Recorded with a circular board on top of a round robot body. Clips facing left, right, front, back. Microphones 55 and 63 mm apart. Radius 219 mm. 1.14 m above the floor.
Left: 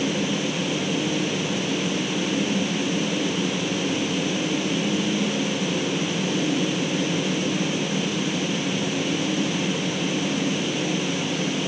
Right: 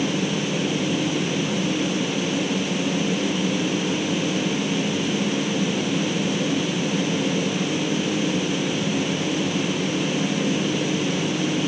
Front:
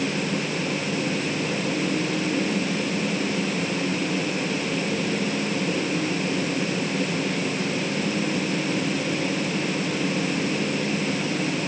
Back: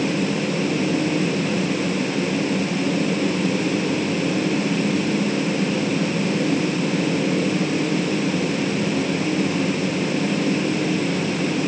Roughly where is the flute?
I don't hear a flute.